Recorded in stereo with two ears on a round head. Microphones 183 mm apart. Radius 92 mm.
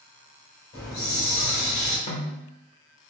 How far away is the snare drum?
About 0.8 m.